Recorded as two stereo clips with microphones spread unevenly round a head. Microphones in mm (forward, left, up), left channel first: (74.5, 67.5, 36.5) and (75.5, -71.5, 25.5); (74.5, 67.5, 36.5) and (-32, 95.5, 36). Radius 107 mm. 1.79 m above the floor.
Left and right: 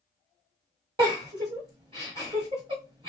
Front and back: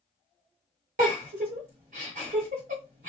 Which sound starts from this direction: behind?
A giggle, at 1.0 s.